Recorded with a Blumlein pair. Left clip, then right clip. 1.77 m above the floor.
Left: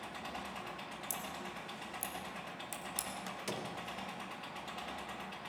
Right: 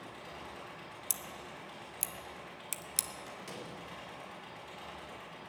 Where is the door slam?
25° left, 1.8 m.